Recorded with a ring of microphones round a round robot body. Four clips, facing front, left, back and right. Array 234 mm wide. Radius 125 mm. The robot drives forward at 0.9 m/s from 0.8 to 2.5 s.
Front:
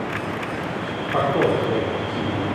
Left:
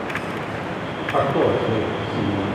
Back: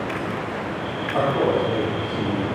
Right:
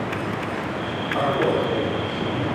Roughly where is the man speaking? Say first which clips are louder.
Left 3 dB, front 1 dB; ahead left.